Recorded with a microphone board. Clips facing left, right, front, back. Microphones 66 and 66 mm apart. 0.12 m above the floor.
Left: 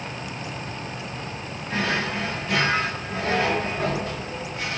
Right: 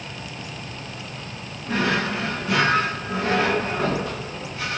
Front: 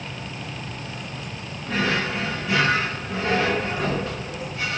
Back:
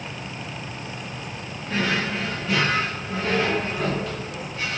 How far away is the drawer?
About 3.5 m.